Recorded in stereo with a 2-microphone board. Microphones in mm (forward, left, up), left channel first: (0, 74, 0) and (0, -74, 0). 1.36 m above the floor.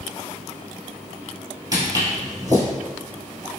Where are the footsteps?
30° right (ahead or behind), 1.5 m.